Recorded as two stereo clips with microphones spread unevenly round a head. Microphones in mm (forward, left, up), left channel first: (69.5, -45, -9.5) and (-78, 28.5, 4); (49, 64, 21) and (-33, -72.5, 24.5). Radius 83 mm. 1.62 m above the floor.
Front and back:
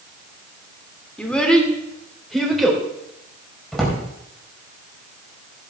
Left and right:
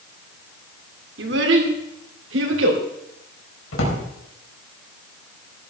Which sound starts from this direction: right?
A child speaking, at 1.2 s.